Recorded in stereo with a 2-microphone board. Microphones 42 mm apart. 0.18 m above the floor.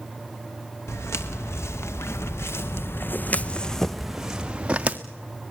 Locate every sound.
0.9 s footsteps: 85° left, 2.5 m; by 5.0 s 30° right (ahead or behind), 1.7 m